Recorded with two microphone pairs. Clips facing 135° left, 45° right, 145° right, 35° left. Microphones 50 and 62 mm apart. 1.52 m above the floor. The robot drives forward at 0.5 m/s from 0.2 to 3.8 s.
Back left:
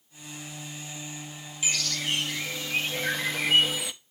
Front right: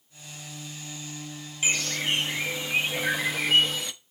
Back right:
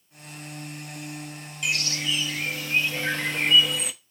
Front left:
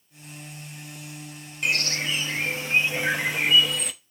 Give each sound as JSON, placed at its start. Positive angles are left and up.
{"t": 1.6, "sound": "a bird", "azimuth_deg": 5, "distance_m": 1.3}